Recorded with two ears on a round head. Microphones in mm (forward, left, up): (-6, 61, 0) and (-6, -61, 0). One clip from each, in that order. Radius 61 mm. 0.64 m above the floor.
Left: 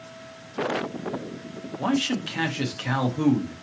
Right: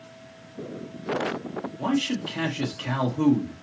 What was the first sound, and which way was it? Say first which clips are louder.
A man speaking: left 2 dB; 30° left (ahead or behind).